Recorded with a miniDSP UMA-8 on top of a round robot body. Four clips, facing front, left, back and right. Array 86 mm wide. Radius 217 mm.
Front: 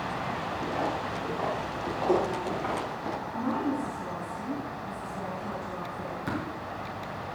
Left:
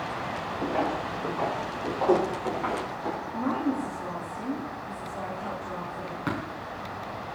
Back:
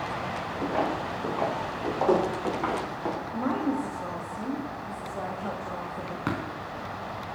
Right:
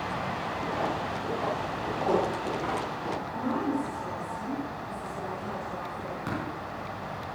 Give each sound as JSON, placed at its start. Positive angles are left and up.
{"t": 0.6, "sound": "footsteps", "azimuth_deg": 150, "distance_m": 6.5}
{"t": 3.3, "sound": "a woman speaking", "azimuth_deg": 165, "distance_m": 3.5}
{"t": 6.3, "sound": "tapping", "azimuth_deg": 160, "distance_m": 5.0}